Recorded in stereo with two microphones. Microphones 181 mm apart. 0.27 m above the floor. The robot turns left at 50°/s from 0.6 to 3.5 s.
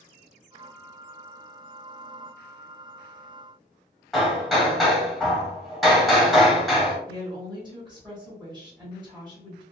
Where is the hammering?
Centre (ahead or behind), 1.0 m.